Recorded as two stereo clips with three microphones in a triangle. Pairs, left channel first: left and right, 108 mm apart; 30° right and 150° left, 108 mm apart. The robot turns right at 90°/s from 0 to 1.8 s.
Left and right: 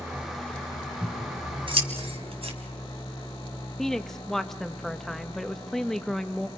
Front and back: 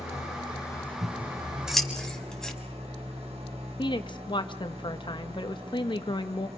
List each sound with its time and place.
0.0 s an engine running: 30° right, 7 m; by 6.6 s 130° left, 7 m
1.0 s scissors: 175° left, 3 m; by 2.5 s 115° right, 3 m
3.8 s a woman speaking: 5° left, 1.4 m